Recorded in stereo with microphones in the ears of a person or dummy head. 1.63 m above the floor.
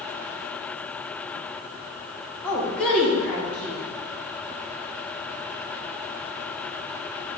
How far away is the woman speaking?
About 2 m.